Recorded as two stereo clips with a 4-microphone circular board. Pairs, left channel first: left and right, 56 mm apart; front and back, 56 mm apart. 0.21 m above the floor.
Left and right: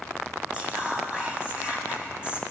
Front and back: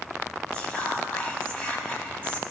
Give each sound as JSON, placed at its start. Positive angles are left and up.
{"t": 0.5, "sound": "whispering", "azimuth_deg": -40, "distance_m": 1.2}